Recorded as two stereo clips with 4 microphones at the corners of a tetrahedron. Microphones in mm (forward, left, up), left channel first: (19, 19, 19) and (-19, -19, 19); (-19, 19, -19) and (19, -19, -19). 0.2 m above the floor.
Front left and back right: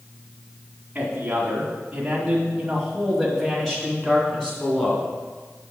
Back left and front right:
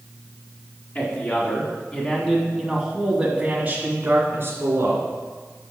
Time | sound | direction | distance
0.9 | a man speaking | 170° left | 2 m